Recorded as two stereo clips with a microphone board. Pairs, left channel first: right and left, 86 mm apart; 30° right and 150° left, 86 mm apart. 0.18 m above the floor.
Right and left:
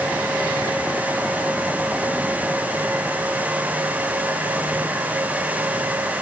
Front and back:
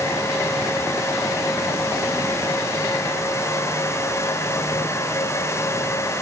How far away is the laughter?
No laughter in this recording.